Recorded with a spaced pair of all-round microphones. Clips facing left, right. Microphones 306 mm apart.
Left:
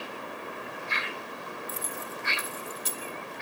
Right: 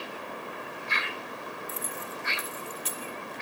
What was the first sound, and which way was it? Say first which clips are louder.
Keys jangling: even; 55° left (ahead or behind).